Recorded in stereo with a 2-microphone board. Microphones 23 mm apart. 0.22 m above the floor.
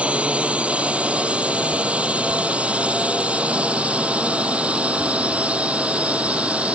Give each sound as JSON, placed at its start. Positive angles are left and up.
{"t": 0.0, "sound": "a drone", "side_deg": -60}